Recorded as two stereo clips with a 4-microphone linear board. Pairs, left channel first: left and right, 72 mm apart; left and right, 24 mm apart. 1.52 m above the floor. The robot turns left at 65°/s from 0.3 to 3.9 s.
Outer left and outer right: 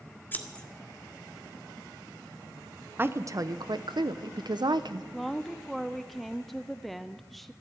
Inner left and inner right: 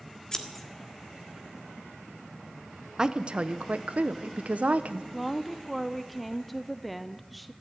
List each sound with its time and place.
0.3 s scissors: 30° left (ahead or behind), 1.5 m; by 0.7 s 10° left (ahead or behind), 1.5 m
3.0 s a woman speaking: 30° right, 0.8 m; by 5.0 s 90° right, 0.8 m
5.1 s a woman speaking: centre (ahead or behind), 0.6 m